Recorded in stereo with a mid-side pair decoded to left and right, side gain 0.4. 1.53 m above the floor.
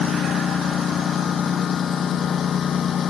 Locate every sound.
0.0 s a lawn mower: 60° left